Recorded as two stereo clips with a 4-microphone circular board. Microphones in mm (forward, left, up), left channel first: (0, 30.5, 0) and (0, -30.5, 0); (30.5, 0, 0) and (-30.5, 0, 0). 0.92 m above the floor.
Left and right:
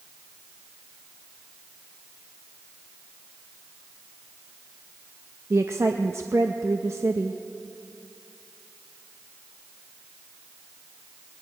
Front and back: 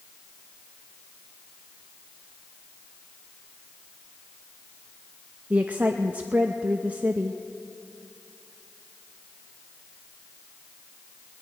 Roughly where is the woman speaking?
Behind right.